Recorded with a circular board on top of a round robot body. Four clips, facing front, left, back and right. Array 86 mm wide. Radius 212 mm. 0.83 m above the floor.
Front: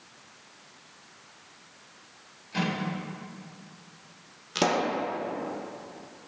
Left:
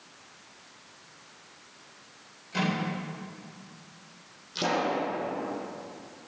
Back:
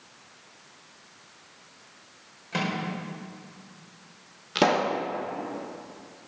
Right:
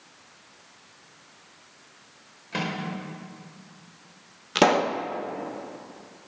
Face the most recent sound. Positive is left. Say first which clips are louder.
# right 7 dB, back 3 dB
turn(degrees=-105)